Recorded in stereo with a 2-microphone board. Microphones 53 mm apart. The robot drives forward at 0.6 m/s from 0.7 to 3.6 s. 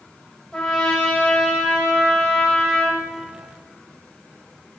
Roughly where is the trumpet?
Centre.